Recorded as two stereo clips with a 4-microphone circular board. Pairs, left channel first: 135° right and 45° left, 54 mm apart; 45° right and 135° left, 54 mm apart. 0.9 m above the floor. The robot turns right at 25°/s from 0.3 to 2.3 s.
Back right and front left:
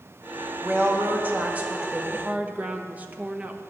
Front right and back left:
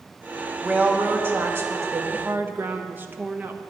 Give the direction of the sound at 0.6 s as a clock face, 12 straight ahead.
9 o'clock.